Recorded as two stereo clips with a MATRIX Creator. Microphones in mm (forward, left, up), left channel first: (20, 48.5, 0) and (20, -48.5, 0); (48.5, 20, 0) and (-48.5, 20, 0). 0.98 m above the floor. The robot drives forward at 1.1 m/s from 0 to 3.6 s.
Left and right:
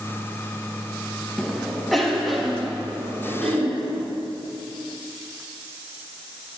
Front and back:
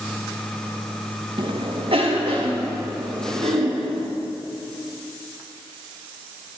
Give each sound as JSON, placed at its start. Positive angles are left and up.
{"t": 1.4, "sound": "a cough", "azimuth_deg": 180, "distance_m": 1.1}